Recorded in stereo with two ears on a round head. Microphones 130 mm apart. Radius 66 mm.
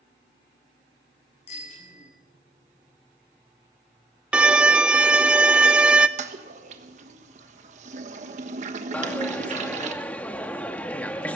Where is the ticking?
No ticking in this recording.